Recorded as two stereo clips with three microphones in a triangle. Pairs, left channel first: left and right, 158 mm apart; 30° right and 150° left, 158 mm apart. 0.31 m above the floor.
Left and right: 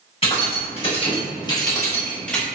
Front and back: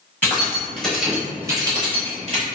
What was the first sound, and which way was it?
Keys jangling, 45° left.